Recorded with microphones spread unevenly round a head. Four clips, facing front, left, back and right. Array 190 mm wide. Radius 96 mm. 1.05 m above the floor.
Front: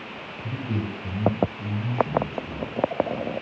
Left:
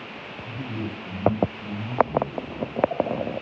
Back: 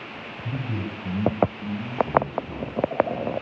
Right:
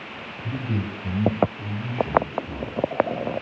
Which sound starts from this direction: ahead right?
A man speaking, at 0.4 s.